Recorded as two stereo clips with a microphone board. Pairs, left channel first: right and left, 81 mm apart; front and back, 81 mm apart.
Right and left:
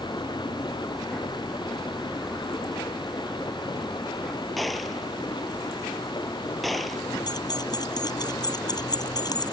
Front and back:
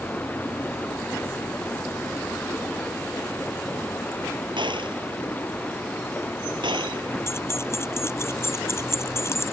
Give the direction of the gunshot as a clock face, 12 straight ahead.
6 o'clock.